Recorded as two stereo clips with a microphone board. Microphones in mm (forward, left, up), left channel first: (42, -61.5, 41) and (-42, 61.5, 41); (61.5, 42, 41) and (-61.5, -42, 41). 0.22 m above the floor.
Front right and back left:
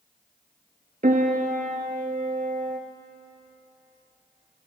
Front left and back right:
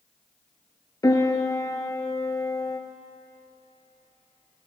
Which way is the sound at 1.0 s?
100° left.